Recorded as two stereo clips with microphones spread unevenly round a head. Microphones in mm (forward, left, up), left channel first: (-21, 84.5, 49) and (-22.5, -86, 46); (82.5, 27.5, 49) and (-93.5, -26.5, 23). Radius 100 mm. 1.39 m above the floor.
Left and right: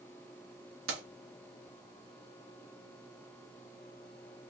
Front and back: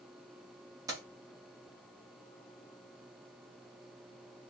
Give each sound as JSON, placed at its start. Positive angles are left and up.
{"t": 0.9, "sound": "keys jangling", "azimuth_deg": -85, "distance_m": 1.1}